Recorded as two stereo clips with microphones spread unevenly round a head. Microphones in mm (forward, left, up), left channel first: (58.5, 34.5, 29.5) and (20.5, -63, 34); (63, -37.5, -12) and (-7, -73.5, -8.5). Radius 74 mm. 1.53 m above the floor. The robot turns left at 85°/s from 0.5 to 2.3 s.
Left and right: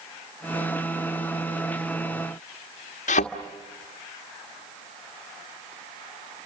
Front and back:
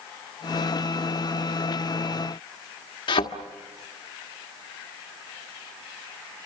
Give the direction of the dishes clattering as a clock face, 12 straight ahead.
No dishes clattering in this recording.